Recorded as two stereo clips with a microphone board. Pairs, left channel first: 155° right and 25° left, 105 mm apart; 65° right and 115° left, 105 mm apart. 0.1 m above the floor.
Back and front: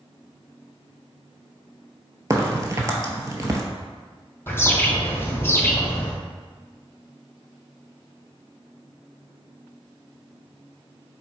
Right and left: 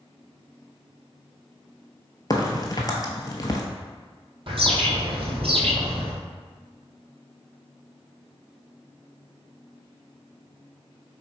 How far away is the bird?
About 1.0 m.